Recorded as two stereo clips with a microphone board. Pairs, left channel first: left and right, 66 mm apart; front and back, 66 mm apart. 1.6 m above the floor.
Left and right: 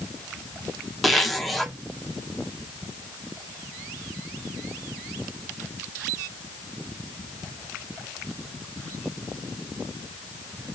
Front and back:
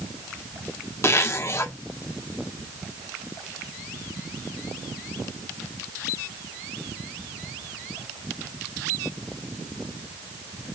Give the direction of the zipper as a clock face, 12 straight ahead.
12 o'clock.